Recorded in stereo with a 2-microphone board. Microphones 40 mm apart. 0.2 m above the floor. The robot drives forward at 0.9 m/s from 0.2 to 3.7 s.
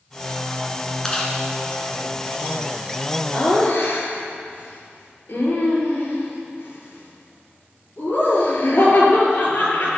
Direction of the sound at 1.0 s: 15° left (ahead or behind).